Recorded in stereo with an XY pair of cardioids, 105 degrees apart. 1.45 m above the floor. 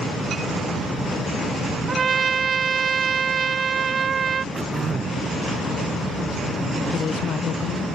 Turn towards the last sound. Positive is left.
turn(degrees=55)